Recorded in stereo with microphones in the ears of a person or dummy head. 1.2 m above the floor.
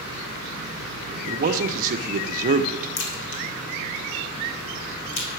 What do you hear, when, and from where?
1.3 s a man speaking: 45° right (ahead or behind), 0.6 m
3.0 s a crack: 75° left (ahead or behind), 1.8 m